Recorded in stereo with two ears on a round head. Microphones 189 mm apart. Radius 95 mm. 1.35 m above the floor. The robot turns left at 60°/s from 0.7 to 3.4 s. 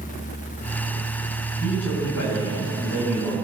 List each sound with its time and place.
1.6 s a man speaking: 125° left, 8 m; by 3.3 s 20° left, 8 m